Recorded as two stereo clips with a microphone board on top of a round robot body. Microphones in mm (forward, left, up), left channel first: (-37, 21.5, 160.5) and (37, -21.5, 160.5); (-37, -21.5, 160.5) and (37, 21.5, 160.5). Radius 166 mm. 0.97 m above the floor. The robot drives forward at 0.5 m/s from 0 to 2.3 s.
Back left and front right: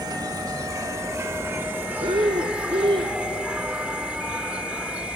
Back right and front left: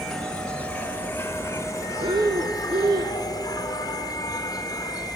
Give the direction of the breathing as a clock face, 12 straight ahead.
12 o'clock.